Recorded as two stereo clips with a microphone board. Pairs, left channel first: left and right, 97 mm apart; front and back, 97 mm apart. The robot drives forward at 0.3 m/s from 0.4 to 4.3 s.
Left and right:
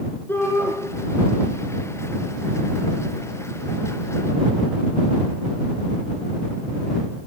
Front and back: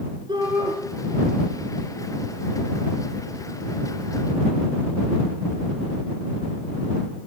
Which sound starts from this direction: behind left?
A shout, at 0.3 s.